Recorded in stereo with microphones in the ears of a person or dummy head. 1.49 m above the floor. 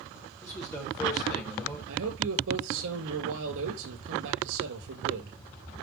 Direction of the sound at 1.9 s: 80° right.